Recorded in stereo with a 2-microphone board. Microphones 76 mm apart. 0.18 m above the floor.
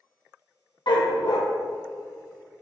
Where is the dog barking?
70° left (ahead or behind), 2.5 m.